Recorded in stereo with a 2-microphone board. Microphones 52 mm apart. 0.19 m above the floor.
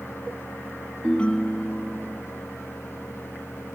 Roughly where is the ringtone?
Left.